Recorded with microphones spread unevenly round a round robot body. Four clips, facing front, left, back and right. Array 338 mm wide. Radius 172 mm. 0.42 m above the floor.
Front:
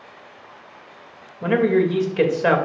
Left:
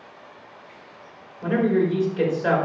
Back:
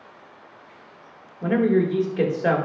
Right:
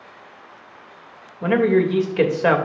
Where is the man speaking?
45° right, 2 m.